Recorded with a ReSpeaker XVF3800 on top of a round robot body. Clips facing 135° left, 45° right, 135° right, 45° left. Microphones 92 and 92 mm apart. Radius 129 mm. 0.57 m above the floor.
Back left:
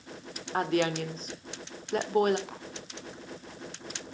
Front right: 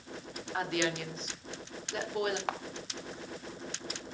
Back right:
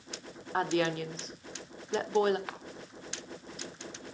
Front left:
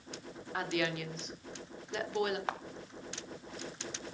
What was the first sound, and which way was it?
A woman speaking, 175° left.